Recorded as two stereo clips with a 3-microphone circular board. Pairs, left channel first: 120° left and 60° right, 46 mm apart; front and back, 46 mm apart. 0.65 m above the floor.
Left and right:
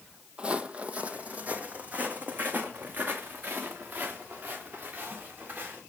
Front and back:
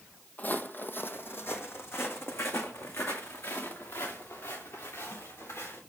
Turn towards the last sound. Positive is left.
turn(degrees=-5)